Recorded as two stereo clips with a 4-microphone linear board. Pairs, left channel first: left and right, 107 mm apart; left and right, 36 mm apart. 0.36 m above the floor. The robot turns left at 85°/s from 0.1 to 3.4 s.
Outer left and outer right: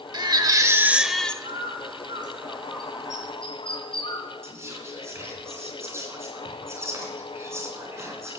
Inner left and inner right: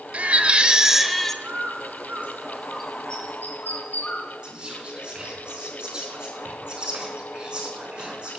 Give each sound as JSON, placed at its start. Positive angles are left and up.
{"t": 0.1, "sound": "a baby crying", "azimuth_deg": -95, "distance_m": 0.8}
{"t": 1.4, "sound": "a bird", "side_deg": -65, "distance_m": 2.5}
{"t": 4.4, "sound": "whispering", "side_deg": -25, "distance_m": 3.5}